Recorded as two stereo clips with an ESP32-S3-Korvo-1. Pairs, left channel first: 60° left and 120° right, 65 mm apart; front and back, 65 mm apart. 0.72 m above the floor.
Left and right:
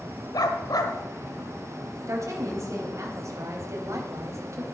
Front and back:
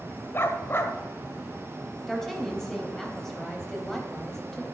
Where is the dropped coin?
No dropped coin in this recording.